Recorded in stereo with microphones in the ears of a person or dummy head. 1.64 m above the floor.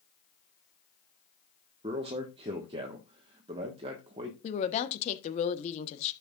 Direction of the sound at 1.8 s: 30° right (ahead or behind).